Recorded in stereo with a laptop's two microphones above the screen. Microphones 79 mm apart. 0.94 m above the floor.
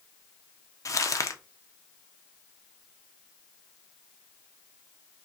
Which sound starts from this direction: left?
Crumpling, at 0.8 s.